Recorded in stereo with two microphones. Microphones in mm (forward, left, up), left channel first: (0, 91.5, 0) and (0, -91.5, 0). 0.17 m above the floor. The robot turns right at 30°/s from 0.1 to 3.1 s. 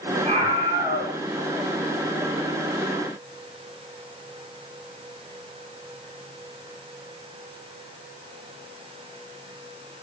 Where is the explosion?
I don't hear an explosion.